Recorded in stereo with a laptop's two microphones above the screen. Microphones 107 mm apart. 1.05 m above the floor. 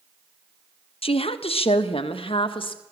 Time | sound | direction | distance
1.0 | a woman speaking | 60° left (ahead or behind) | 1.2 m